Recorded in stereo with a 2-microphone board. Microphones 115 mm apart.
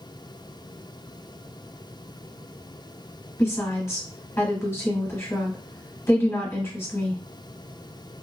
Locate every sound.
3.4 s a woman speaking: 25° left (ahead or behind), 1.2 m